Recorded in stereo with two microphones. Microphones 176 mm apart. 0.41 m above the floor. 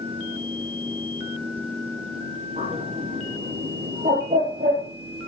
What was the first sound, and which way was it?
A bird, 50° right (ahead or behind).